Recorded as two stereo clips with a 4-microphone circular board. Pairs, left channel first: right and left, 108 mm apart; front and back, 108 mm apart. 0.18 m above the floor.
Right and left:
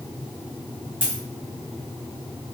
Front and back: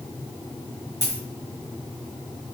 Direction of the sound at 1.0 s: 130° right.